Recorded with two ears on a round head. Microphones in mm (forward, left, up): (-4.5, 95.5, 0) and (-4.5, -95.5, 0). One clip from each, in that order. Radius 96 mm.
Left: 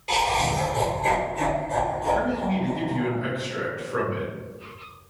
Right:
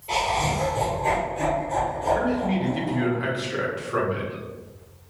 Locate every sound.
0.1 s laughter: 55° left (ahead or behind), 0.9 m; by 3.1 s 30° right (ahead or behind), 1.6 m
2.1 s a man speaking: 75° right (ahead or behind), 1.2 m